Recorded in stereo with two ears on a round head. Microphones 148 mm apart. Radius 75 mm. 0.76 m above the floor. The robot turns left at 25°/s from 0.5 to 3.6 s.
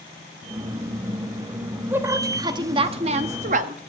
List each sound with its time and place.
1.9 s a woman speaking: 15° right, 0.8 m; by 3.8 s 60° right, 0.8 m